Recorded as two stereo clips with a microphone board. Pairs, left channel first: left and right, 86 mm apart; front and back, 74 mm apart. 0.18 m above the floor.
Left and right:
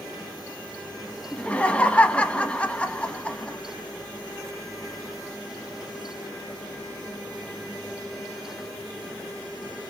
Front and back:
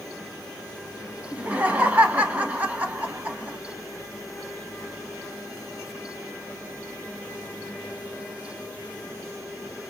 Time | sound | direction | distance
1.3 | laughter | 145° left | 1.1 m